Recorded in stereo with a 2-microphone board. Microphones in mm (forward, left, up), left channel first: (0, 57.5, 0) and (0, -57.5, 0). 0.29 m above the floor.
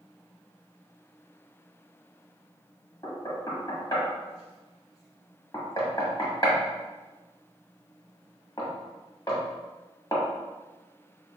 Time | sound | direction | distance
3.0 | knocking | 35° left (ahead or behind) | 1.3 m